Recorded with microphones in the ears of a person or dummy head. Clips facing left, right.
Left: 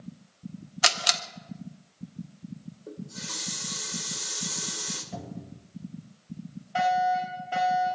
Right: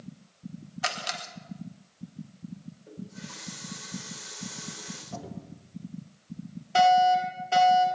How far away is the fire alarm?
About 6.5 m.